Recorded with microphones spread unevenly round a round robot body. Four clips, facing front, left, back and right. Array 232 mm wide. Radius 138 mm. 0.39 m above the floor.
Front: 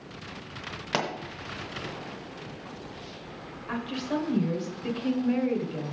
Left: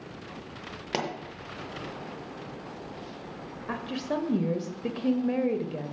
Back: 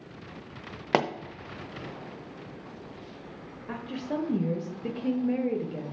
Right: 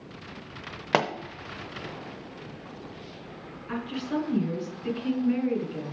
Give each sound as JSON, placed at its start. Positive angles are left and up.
{"t": 0.9, "sound": "a pop", "azimuth_deg": -160, "distance_m": 0.7}
{"t": 3.7, "sound": "a woman speaking", "azimuth_deg": 115, "distance_m": 1.4}